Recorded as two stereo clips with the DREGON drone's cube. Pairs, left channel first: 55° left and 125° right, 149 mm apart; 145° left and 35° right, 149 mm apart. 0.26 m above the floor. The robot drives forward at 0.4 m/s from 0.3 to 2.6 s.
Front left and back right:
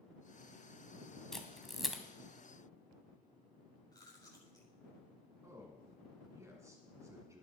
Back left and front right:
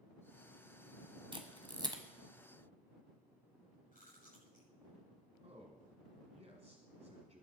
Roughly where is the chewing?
Behind left.